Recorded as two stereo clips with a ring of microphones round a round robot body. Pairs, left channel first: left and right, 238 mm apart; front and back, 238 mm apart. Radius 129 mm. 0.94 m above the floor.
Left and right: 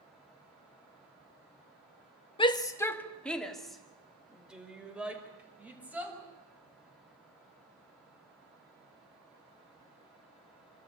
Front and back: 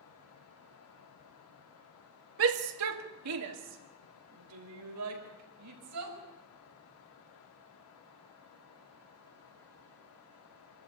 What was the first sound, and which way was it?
A shout, 155° left.